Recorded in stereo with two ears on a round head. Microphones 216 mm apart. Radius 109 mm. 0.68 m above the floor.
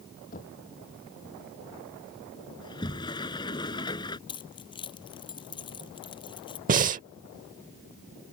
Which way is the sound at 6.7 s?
35° right (ahead or behind).